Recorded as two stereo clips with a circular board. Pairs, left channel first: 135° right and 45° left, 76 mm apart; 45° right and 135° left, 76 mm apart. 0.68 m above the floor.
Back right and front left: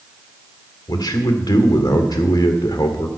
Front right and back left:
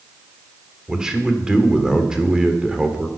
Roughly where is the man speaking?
Behind right.